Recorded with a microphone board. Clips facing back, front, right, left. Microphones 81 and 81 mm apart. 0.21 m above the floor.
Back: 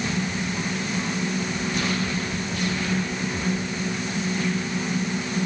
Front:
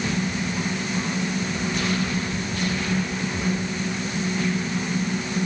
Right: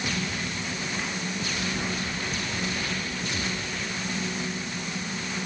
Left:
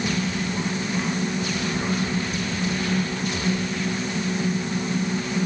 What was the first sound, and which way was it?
Only background noise.